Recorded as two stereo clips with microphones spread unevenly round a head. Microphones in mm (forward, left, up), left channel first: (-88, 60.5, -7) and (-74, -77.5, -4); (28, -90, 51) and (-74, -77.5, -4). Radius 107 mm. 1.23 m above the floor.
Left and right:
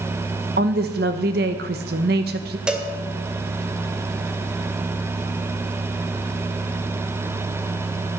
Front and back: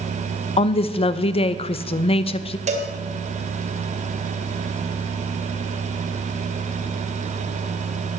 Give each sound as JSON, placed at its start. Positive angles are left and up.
{"t": 0.6, "sound": "a woman speaking", "azimuth_deg": -40, "distance_m": 0.8}
{"t": 2.7, "sound": "a cowbell", "azimuth_deg": -165, "distance_m": 2.0}